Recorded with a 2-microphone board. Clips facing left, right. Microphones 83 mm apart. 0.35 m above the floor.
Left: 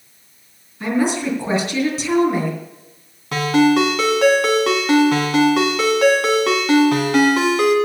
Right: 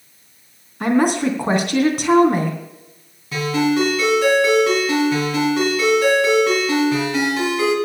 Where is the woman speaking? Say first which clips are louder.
Right 3 dB; 55° right (ahead or behind), 3 m.